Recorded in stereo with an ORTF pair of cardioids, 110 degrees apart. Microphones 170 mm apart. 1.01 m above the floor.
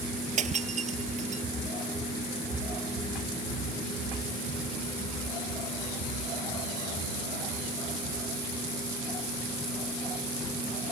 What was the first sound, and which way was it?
Breaking glass, 45° right.